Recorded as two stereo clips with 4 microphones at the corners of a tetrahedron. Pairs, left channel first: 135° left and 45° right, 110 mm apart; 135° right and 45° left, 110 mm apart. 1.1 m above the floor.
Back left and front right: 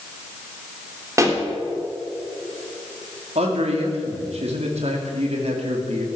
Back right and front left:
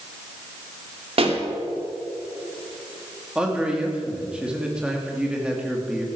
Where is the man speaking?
35° right, 2.5 m.